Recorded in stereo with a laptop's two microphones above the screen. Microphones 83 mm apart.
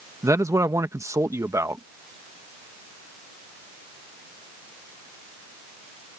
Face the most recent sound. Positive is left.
turn(degrees=-40)  # may be behind; listen again after turning